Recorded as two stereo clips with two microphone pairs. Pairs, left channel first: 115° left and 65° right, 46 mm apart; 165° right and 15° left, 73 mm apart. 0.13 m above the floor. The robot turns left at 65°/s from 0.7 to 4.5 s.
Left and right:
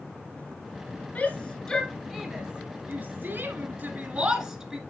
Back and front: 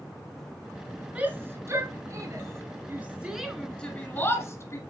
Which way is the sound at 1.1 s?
75° left.